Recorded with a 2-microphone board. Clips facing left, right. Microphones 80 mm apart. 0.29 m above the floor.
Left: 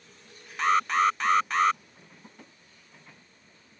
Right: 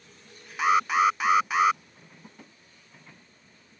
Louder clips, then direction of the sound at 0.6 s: Right 1 dB; 10° right (ahead or behind).